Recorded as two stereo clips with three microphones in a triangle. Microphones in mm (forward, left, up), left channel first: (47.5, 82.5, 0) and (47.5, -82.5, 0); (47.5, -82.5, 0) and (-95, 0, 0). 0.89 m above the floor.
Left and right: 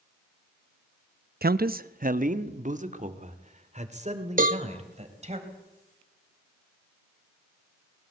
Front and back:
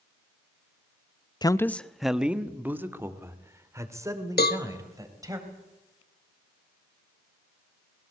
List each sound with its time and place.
1.4 s a man speaking: 95° right, 0.6 m; by 5.4 s 140° right, 4 m
4.4 s a cowbell: 50° right, 1.2 m